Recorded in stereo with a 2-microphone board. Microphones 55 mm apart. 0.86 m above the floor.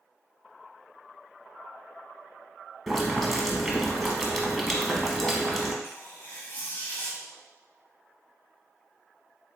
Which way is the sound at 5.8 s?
40° left (ahead or behind).